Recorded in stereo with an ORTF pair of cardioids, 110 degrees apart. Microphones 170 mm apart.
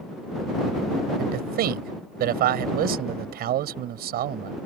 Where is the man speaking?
70° right.